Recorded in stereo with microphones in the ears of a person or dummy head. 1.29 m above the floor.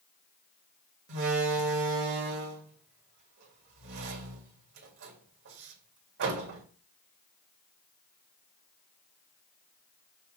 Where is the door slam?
60° right (ahead or behind), 1.9 m.